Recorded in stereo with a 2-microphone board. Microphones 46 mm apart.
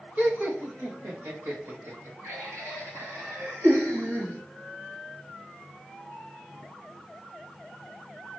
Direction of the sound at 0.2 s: 40° right (ahead or behind).